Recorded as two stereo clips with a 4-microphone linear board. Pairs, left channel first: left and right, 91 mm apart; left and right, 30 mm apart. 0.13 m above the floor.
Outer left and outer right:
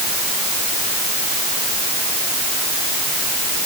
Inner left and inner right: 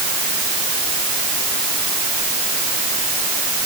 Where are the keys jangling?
I don't hear keys jangling.